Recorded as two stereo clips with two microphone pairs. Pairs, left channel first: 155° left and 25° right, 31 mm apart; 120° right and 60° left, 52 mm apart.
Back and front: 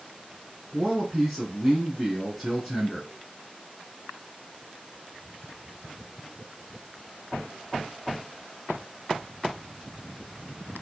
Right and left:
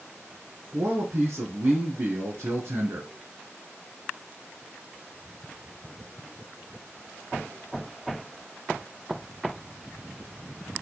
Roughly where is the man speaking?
Ahead left.